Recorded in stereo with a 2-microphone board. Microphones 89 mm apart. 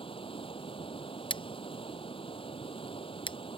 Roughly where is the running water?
Left.